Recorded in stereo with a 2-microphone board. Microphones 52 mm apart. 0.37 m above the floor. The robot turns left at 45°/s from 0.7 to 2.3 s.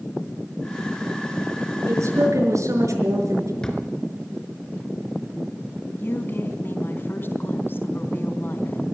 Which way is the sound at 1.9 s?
65° right (ahead or behind).